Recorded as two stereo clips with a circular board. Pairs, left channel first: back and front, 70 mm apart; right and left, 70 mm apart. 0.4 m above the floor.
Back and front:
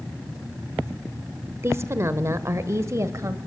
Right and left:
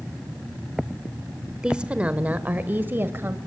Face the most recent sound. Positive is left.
turn(degrees=35)